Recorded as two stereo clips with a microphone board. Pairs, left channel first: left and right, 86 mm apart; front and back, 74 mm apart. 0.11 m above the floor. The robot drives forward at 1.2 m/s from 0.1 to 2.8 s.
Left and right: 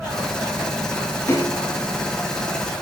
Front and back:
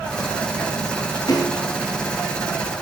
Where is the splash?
30° left, 9 m; by 1.6 s 35° left, 8.5 m.